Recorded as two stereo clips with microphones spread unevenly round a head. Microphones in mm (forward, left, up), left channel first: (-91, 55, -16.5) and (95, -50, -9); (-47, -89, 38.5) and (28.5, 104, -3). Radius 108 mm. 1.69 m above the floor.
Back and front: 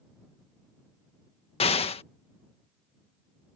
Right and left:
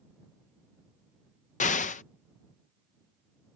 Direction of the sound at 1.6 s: 150° right.